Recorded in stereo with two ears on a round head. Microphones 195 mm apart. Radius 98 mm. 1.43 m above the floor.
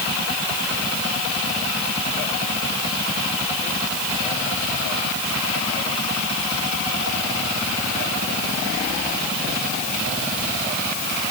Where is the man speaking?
No man speaking in this recording.